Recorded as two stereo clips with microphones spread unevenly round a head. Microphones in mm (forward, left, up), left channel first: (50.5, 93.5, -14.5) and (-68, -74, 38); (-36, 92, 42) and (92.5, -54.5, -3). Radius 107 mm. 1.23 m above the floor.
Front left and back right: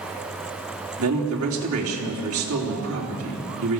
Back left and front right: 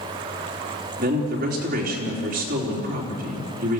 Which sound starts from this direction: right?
A man speaking, at 1.0 s.